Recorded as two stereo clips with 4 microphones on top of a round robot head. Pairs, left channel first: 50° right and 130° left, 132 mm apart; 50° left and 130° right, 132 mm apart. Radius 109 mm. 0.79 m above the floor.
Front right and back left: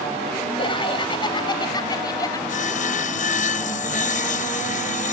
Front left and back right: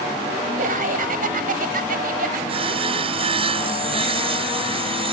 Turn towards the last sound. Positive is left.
turn(degrees=-80)